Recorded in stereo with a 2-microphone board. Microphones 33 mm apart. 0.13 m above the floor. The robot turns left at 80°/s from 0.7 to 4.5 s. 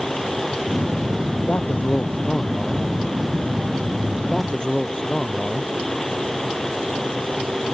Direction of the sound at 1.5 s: 115° left.